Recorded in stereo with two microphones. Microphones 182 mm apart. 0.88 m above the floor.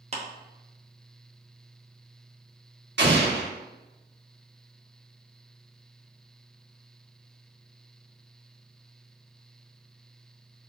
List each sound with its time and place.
0.1 s a clap: 35° right (ahead or behind), 0.8 m
3.0 s an explosion: 75° right (ahead or behind), 1.2 m